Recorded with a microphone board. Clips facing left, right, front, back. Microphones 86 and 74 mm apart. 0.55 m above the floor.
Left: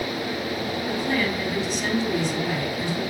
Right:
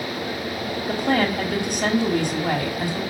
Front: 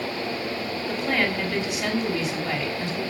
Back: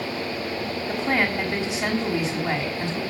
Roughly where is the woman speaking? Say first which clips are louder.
Right 5 dB, back 1 dB; right.